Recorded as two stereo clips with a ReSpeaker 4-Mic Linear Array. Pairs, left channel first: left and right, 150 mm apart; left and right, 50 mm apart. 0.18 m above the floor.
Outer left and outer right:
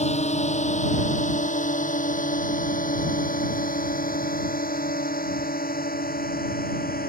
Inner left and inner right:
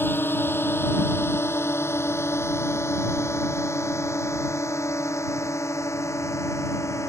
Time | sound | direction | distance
0.0 | a drone | 50° left (ahead or behind) | ?